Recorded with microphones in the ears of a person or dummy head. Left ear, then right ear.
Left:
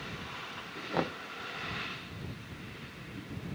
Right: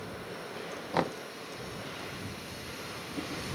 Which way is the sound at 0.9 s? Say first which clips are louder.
Right 3 dB; 25° right (ahead or behind).